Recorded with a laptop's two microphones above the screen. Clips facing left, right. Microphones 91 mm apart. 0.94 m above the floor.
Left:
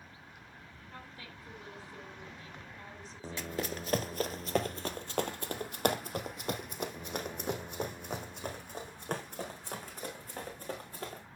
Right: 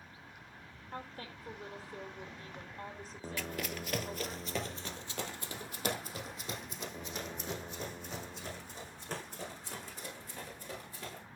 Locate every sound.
0.9 s a woman speaking: 45° right (ahead or behind), 3.5 m
3.4 s running footsteps: 25° left (ahead or behind), 1.1 m; by 11.2 s 55° left (ahead or behind), 5 m